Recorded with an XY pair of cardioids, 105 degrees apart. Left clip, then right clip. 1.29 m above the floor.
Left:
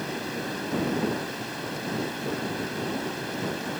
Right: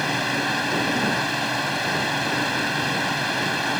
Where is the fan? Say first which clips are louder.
Right 9 dB; 70° right.